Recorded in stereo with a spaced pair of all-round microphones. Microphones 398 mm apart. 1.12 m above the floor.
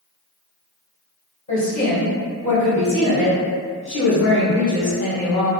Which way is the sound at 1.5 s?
40° left (ahead or behind).